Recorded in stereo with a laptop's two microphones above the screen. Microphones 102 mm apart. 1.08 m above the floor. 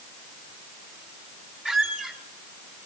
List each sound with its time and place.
1.6 s a squeak: 5° right (ahead or behind), 2.5 m